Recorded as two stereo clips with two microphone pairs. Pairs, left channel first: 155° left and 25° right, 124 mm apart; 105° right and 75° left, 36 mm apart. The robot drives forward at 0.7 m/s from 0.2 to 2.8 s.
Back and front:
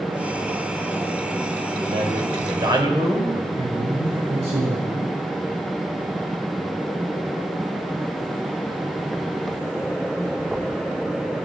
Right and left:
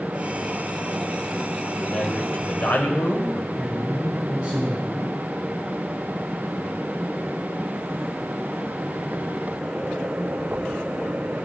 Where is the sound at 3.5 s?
10° left, 5.5 m.